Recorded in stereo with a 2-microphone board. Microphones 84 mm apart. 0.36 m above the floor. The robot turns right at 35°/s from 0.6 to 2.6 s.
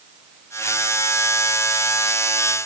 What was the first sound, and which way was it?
Only background noise.